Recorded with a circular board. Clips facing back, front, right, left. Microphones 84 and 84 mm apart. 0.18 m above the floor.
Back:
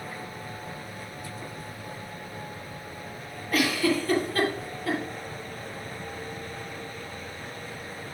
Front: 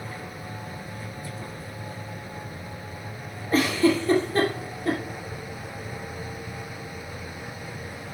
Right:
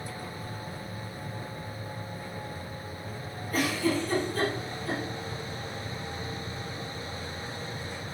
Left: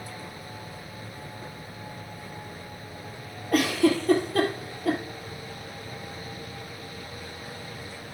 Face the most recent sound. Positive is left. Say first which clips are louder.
# front 4 dB, left 6 dB
turn(degrees=65)